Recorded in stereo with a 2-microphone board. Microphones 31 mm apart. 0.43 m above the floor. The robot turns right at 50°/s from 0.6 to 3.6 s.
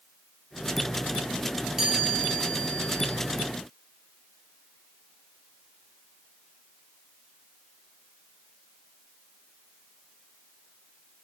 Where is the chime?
10° right, 8 m; by 3.2 s 60° left, 8 m.